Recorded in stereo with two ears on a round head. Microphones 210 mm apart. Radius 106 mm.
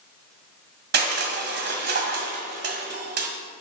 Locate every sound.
0.9 s crushing: 45° right (ahead or behind), 1.8 m